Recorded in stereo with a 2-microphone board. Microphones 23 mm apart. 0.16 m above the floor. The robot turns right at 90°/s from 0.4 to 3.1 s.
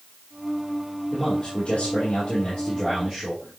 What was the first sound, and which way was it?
A man speaking, 25° left.